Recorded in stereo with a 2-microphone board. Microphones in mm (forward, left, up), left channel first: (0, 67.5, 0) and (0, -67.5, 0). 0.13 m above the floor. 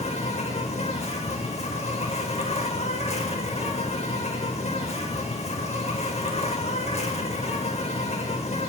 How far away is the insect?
About 1.0 m.